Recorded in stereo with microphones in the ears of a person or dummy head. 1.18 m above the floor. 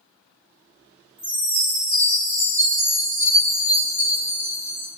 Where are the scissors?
No scissors in this recording.